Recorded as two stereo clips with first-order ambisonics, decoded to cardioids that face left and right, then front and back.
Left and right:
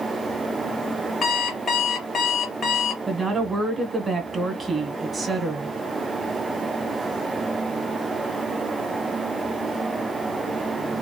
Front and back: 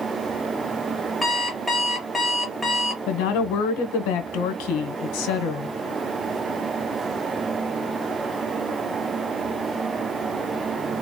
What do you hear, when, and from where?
1.2 s an alarm clock: 70° left, 1.0 m
3.1 s a woman speaking: 10° right, 1.1 m